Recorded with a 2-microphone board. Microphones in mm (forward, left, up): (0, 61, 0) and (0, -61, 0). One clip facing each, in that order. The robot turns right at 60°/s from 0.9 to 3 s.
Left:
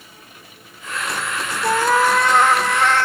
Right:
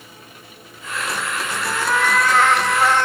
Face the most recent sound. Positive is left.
turn(degrees=-165)